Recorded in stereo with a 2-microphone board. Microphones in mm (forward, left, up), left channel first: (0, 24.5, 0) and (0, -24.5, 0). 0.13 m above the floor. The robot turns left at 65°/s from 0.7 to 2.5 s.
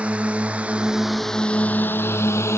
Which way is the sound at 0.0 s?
25° right (ahead or behind).